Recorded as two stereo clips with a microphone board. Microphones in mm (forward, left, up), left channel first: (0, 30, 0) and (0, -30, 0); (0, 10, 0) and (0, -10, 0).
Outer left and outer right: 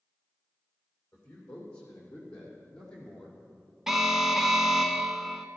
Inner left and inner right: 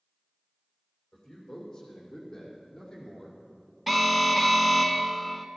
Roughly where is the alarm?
Centre.